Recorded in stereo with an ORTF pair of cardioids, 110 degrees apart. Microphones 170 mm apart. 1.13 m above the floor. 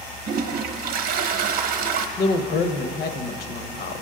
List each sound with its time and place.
0.3 s a toilet flushing: 60° right, 0.8 m
2.2 s a woman speaking: 65° left, 1.0 m